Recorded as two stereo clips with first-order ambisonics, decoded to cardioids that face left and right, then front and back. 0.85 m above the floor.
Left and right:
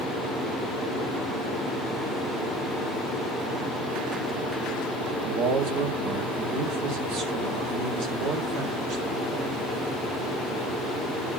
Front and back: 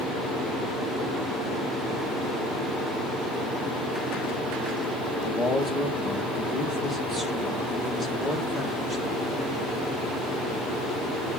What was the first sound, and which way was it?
A man speaking, 105° right.